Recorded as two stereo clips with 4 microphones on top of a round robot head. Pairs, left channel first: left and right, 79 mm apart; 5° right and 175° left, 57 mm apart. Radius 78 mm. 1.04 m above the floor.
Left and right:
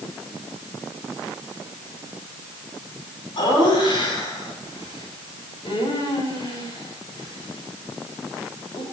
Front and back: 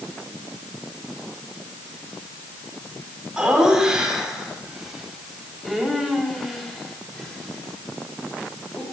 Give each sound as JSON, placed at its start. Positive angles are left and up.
{"t": 3.4, "sound": "laughter", "azimuth_deg": 100, "distance_m": 9.5}